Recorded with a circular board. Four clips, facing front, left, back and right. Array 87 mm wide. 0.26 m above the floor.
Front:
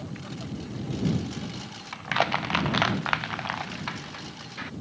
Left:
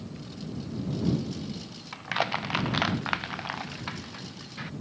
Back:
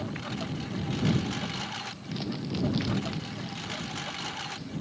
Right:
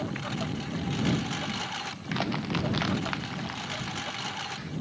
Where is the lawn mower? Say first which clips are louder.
Right 7 dB, back 3 dB; 110° right; by 4.8 s 120° right.